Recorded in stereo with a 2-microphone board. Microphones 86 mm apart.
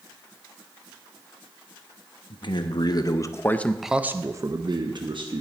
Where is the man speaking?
60° left (ahead or behind), 1.1 m; by 5.4 s 65° right (ahead or behind), 1.1 m.